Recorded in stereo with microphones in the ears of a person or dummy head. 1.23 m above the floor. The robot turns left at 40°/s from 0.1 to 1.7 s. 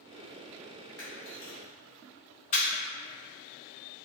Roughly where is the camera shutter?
Centre.